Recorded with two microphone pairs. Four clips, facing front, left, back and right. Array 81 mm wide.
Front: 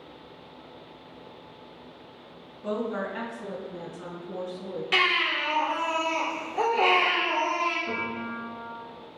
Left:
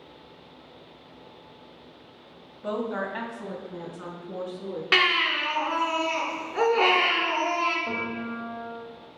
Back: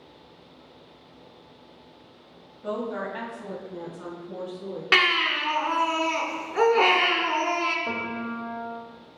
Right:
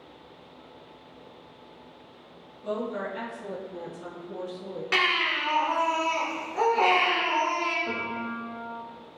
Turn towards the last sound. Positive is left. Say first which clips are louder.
# left 1 dB, back 1 dB
turn(degrees=165)